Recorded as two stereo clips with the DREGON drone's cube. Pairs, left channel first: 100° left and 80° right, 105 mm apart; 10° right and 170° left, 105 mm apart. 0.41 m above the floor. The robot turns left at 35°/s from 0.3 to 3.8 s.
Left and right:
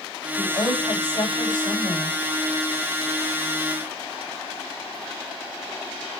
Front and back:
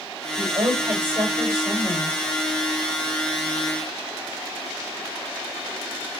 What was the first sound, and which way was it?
A woman speaking, 125° left.